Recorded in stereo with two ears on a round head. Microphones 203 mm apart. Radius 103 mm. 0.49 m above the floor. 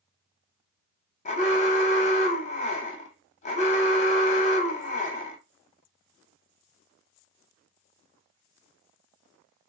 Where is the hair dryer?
I don't hear a hair dryer.